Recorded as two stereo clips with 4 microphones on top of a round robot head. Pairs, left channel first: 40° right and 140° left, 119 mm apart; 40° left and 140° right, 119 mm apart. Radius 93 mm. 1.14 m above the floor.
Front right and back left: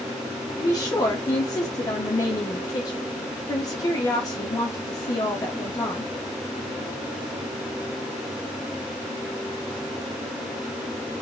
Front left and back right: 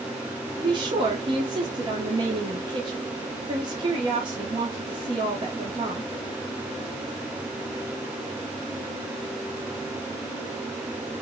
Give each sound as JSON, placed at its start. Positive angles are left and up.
{"t": 0.6, "sound": "a woman speaking", "azimuth_deg": -95, "distance_m": 1.2}